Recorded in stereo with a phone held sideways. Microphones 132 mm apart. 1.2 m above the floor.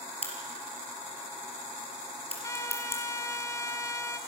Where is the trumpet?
25° left (ahead or behind), 1.5 m.